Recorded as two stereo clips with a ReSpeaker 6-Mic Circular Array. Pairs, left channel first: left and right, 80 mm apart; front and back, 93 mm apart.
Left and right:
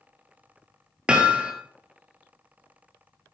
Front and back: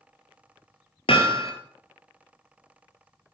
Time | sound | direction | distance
1.1 | hammering | 10° right | 1.5 m